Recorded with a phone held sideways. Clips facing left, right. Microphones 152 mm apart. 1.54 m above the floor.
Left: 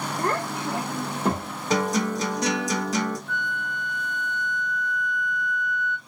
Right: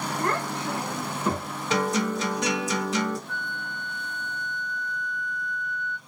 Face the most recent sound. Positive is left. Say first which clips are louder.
# left 4 dB
turn(degrees=-30)  # may be behind; listen again after turning